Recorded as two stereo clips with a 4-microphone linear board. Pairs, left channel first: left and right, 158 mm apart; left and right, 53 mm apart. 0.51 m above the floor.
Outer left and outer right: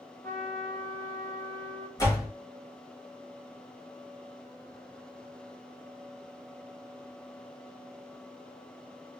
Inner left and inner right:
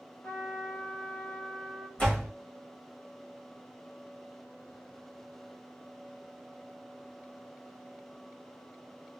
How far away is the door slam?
About 1.7 m.